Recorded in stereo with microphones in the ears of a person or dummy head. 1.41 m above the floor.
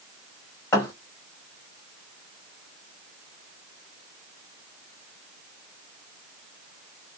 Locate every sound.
0.7 s a thud: 20° left (ahead or behind), 1.2 m